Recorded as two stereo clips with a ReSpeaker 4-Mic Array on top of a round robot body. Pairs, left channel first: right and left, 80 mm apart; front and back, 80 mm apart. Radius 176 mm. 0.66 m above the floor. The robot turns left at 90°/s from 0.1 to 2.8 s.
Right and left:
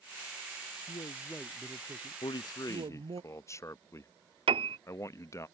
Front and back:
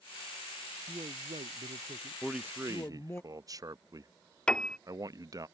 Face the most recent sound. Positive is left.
turn(degrees=80)